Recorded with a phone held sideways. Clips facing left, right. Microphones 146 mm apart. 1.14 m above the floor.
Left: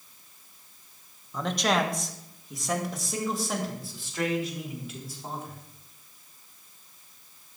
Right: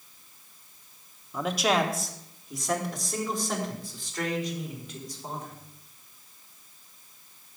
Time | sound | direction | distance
1.3 | a man speaking | 5° right (ahead or behind) | 1.2 m